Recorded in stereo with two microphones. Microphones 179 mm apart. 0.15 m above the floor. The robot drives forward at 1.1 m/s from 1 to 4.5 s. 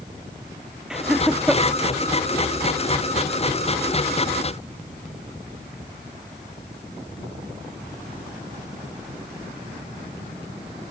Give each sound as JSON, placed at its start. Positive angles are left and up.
{"t": 0.9, "sound": "laughter", "side_deg": -5}